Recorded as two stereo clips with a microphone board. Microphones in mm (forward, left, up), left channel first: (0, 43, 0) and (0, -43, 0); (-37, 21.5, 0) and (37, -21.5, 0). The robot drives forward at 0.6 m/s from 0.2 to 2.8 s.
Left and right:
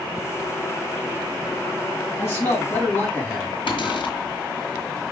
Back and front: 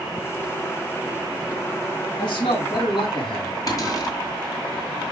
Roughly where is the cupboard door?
Left.